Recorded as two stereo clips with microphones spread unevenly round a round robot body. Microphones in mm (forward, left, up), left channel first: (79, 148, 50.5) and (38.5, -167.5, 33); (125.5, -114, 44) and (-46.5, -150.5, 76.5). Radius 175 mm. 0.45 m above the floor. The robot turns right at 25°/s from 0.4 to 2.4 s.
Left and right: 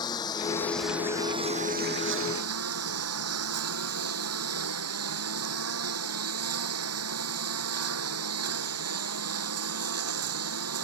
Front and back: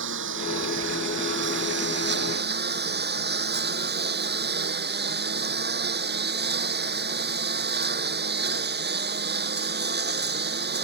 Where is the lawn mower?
160° left; by 10.8 s 150° right.